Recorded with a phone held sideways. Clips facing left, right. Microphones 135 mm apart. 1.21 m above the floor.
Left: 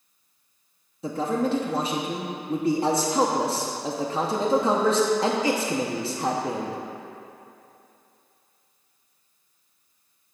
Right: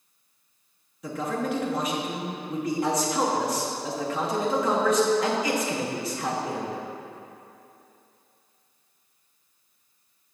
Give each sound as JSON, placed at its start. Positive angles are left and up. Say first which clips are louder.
{"t": 1.0, "sound": "a man speaking", "louder": "left 4 dB", "side_deg": 30, "distance_m": 0.9}